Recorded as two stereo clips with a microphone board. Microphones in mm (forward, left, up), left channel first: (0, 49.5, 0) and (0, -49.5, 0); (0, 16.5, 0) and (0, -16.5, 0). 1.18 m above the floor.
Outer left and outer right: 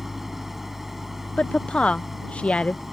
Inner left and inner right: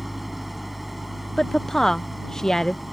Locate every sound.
0.0 s an engine running: centre (ahead or behind)
1.4 s a woman speaking: 10° left (ahead or behind)